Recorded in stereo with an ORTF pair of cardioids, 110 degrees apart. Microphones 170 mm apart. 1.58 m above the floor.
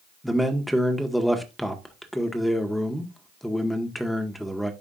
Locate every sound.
0.2 s a man speaking: straight ahead, 1.7 m